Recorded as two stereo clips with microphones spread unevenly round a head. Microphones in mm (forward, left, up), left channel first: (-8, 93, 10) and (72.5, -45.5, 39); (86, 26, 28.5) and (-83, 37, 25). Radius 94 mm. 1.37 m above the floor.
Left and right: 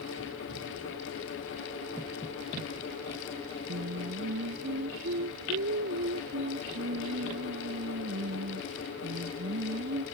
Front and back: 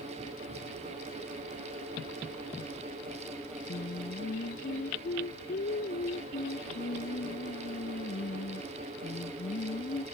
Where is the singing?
55° right.